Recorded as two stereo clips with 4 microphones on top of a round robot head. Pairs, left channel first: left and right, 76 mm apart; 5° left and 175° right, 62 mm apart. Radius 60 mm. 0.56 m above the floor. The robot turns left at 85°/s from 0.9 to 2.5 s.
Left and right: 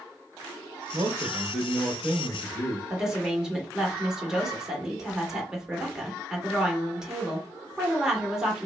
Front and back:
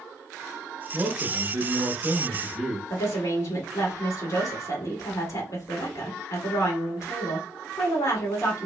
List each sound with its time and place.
0.9 s a man speaking: 105° right, 0.7 m; by 2.8 s 120° left, 0.7 m
2.9 s a woman speaking: 10° right, 1.5 m